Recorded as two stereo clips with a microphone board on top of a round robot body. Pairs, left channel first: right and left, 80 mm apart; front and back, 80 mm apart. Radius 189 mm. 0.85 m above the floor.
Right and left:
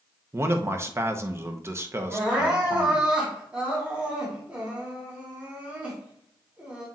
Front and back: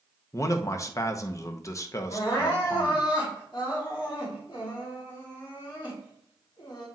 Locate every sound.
0.3 s a man speaking: 40° left, 0.9 m
2.1 s crying: 15° left, 3 m